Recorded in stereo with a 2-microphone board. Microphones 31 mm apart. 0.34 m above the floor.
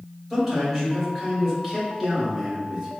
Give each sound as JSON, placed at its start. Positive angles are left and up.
{"t": 0.3, "sound": "a man speaking", "side_deg": 0, "distance_m": 1.8}